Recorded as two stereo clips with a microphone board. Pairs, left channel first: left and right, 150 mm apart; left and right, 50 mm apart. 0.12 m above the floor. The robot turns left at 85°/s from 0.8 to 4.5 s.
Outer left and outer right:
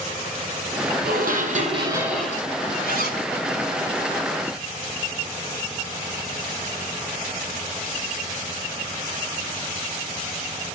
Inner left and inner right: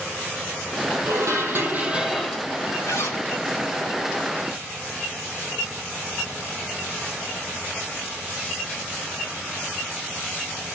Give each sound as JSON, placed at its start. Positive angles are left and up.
{"t": 1.1, "sound": "dishes clattering", "azimuth_deg": -80, "distance_m": 2.5}
{"t": 2.9, "sound": "a zipper", "azimuth_deg": 105, "distance_m": 4.5}